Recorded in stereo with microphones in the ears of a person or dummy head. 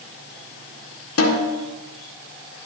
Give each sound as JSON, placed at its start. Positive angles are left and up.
{"t": 1.2, "sound": "a snare drum", "side_deg": 80, "distance_m": 1.7}